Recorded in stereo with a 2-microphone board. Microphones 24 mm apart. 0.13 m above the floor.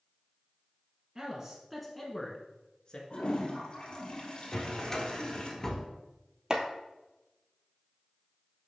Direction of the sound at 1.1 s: 30° right (ahead or behind).